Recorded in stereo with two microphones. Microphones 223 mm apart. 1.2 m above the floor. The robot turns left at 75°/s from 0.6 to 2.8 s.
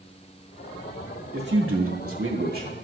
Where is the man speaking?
45° right, 2.0 m; by 2.7 s 150° right, 2.0 m.